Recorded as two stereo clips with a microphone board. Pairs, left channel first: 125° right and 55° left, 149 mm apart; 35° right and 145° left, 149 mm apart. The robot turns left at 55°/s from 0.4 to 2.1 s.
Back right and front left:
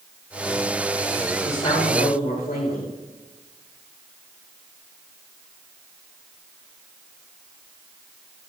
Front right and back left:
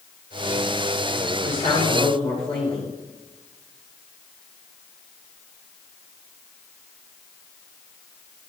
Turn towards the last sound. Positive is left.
turn(degrees=-95)